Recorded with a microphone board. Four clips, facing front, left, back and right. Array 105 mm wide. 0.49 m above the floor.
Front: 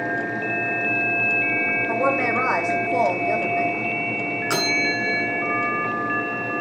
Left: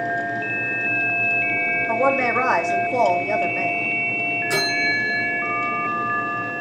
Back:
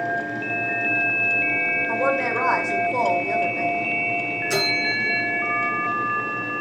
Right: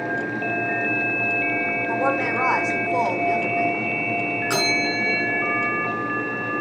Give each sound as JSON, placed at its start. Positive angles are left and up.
{"t": 1.9, "sound": "a woman speaking", "azimuth_deg": 60, "distance_m": 2.5}
{"t": 4.5, "sound": "a bell", "azimuth_deg": -25, "distance_m": 6.0}